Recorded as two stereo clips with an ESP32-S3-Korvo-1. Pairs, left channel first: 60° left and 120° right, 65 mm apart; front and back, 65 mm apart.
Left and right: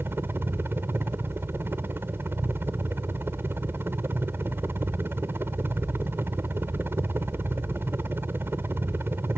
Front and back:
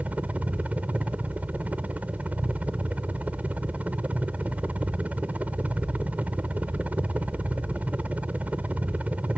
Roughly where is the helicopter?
Behind right.